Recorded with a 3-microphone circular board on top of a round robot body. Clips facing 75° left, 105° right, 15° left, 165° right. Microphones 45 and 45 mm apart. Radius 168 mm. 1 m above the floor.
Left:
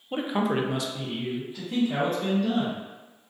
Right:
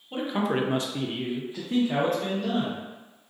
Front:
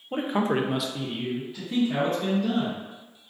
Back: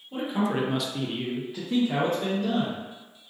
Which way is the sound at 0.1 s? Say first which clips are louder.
Left 1 dB, front 2 dB; 10° left.